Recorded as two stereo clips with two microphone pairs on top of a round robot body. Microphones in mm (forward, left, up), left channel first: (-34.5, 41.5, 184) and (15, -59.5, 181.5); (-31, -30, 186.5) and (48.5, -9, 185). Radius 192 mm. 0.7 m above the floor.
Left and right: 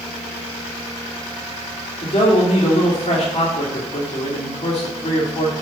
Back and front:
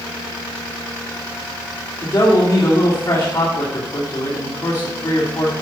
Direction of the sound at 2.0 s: 150° left.